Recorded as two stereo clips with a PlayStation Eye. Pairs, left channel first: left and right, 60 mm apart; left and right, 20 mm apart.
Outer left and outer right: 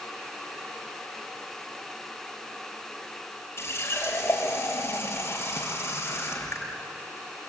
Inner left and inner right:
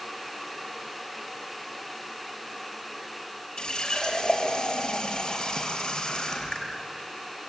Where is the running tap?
45° left (ahead or behind), 5.5 m.